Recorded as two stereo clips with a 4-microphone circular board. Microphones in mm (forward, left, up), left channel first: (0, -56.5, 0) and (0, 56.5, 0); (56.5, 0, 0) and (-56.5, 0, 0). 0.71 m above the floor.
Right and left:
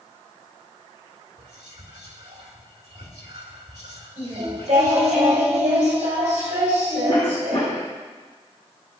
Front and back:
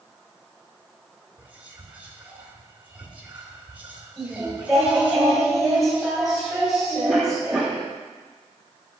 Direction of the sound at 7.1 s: 95° right.